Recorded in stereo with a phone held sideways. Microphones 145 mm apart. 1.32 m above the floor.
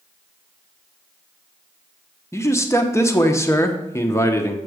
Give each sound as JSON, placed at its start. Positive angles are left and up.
{"t": 2.3, "sound": "a man speaking", "side_deg": 20, "distance_m": 1.0}